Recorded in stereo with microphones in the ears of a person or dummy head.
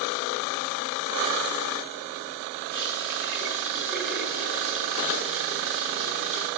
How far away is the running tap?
About 10 m.